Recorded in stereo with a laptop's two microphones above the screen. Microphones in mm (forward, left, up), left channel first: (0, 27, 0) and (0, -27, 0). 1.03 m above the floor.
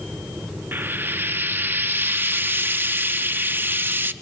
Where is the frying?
35° right (ahead or behind), 0.5 m.